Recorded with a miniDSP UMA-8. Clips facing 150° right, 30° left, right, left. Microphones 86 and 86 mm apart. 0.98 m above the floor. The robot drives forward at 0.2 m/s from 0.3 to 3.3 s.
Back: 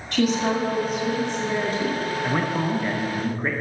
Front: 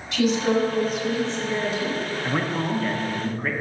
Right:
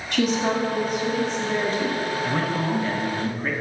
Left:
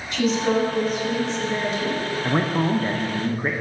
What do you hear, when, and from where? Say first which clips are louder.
0.1 s a woman speaking: front 1 dB, left 1 dB; 120° right, 2 m; by 2.0 s 125° right, 2.5 m
2.2 s a man speaking: back 1 dB, left 6 dB; 120° left, 0.6 m; by 3.5 s 140° left, 0.7 m